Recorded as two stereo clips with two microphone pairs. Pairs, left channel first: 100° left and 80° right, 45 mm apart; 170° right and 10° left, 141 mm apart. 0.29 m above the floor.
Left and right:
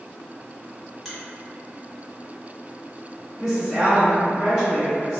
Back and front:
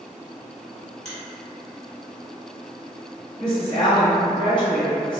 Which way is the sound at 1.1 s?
170° right.